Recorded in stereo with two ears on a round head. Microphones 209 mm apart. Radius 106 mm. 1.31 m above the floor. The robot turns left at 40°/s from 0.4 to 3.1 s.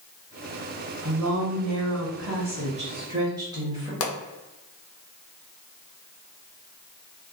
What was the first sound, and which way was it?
A woman speaking, 80° right.